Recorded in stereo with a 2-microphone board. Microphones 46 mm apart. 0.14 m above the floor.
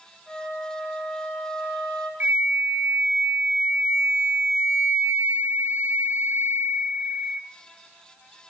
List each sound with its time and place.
0.3 s a flute: 10° right (ahead or behind), 4 m
2.2 s a flute: 45° right (ahead or behind), 0.6 m